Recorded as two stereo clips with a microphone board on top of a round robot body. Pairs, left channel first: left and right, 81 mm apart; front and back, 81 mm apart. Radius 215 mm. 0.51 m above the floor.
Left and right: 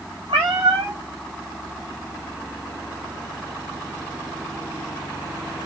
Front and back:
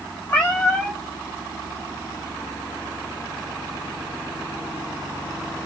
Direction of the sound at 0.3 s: 70° right.